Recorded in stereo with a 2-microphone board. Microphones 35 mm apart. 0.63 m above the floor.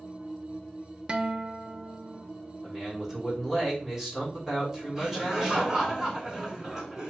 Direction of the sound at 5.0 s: 10° right (ahead or behind).